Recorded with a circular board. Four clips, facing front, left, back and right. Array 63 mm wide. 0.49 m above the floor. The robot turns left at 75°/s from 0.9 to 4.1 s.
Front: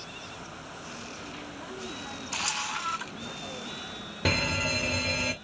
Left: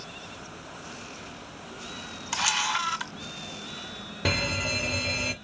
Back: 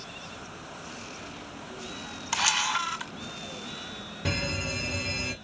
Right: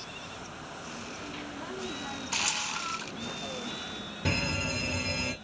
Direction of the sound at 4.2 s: 45° left.